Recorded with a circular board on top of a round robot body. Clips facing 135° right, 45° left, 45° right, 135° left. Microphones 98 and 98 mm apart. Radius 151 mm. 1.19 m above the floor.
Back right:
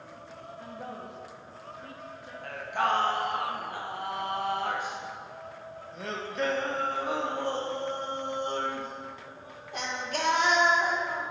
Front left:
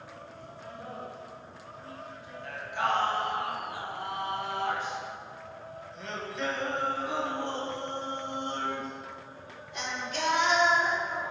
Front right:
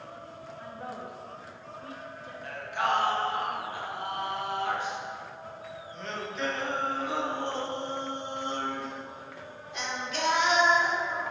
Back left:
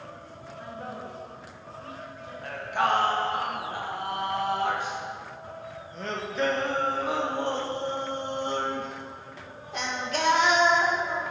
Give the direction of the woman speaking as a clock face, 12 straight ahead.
5 o'clock.